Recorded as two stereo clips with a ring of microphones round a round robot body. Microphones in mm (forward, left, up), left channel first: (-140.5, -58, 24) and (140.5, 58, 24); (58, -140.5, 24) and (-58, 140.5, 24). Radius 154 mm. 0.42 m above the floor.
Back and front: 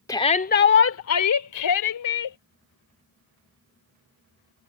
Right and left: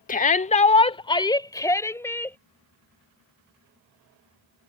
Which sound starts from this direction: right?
A shout, at 0.1 s.